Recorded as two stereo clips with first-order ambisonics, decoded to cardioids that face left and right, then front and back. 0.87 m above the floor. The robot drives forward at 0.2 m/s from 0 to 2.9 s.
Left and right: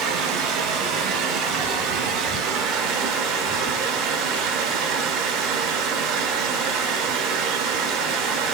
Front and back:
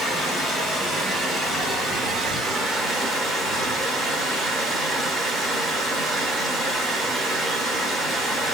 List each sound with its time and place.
0.0 s running water: 80° right, 1.2 m; by 8.5 s 105° right, 1.3 m